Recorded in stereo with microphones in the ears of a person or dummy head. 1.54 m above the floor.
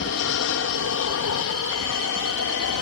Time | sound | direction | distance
0.0 | an aircraft | 60° left (ahead or behind) | ?